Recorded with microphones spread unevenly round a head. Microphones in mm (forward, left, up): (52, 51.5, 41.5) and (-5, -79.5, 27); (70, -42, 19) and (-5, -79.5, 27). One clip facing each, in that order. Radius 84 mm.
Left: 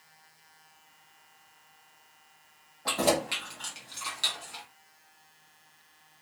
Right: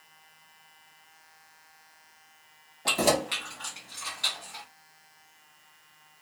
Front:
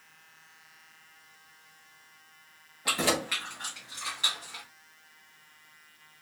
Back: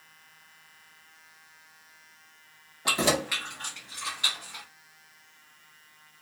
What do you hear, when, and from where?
2.9 s keys jangling: 170° right, 0.7 m; by 4.6 s 95° left, 1.4 m